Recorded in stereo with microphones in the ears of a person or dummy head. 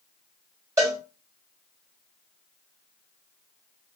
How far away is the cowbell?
About 1.7 m.